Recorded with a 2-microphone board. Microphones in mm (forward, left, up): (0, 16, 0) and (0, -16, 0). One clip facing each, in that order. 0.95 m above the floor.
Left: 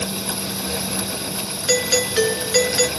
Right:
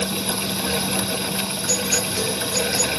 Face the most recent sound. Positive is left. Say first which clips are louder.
# left 7 dB
turn(degrees=70)  # may be behind; listen again after turning